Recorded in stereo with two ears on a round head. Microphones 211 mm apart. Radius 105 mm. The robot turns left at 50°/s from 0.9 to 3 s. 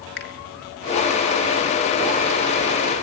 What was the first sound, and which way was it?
A finger snap, 45° left (ahead or behind).